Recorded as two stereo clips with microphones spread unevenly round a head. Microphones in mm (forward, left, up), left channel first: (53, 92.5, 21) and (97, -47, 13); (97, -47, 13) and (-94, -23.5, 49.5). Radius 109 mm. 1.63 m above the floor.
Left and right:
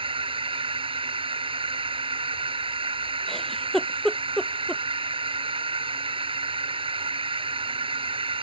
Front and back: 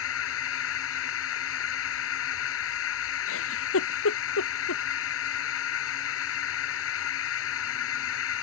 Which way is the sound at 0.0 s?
20° right.